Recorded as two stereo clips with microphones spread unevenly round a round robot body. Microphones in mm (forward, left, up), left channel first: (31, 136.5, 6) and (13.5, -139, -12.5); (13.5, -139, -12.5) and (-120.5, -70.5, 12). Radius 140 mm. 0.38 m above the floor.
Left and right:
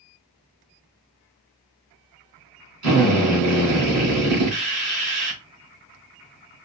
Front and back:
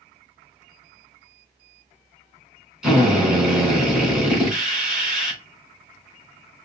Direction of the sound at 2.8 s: 120° right.